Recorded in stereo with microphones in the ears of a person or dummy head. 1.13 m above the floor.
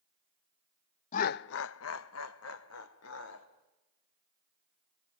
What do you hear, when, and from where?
1.1 s laughter: 45° left (ahead or behind), 0.5 m; by 3.5 s 70° left (ahead or behind), 1.9 m